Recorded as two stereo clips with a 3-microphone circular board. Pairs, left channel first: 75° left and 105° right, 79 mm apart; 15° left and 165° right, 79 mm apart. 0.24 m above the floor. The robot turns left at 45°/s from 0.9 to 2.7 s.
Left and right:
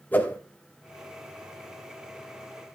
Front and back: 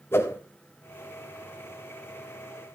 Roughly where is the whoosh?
Ahead left.